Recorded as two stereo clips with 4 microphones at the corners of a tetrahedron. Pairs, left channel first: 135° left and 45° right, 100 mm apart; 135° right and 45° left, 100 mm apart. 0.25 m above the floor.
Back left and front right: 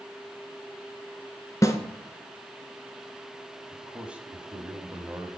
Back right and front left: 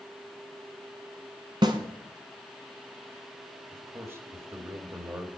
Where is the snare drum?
80° left, 1.1 m.